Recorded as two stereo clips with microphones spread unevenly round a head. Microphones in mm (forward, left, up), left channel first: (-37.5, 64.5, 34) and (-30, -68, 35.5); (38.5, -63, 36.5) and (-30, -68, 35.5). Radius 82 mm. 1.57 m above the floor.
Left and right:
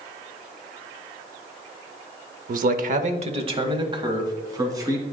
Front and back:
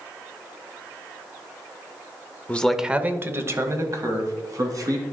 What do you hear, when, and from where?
2.5 s a man speaking: 65° right, 0.7 m; by 5.0 s 150° right, 3 m